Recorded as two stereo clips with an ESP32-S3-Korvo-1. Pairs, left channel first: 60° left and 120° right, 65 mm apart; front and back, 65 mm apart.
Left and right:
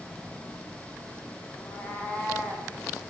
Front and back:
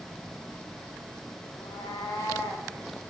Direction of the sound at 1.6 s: 5° right.